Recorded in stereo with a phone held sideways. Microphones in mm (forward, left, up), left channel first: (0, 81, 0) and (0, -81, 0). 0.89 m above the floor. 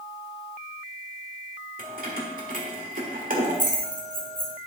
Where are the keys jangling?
60° right (ahead or behind), 1.6 m.